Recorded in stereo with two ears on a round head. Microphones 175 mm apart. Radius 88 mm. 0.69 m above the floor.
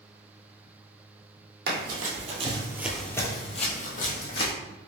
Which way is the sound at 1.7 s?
55° right (ahead or behind).